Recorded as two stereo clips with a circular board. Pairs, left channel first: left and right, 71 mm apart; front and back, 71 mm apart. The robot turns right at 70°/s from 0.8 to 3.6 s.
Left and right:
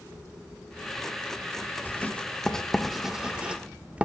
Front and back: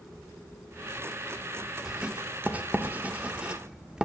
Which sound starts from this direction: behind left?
Writing, at 1.9 s.